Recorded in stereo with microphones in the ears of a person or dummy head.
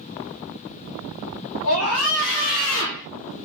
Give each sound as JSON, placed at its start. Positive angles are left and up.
{"t": 1.6, "sound": "a scream", "side_deg": 85, "distance_m": 3.0}